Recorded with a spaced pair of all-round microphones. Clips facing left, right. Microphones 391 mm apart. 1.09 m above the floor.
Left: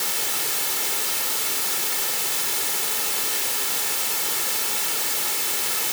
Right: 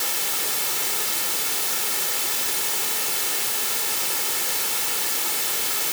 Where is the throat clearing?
I don't hear throat clearing.